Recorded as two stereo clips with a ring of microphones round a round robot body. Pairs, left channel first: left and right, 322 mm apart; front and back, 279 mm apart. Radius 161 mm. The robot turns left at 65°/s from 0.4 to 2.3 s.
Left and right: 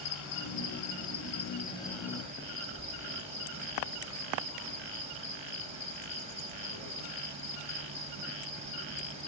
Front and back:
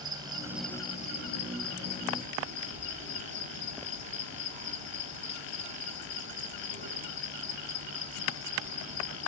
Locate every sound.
0.0 s an insect: 105° left, 2 m; by 9.3 s 20° right, 2 m